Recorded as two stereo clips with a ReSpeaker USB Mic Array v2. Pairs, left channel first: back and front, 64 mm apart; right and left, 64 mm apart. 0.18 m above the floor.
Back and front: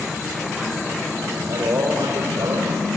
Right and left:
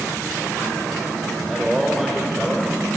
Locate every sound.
1.3 s a man speaking: 5° right, 5 m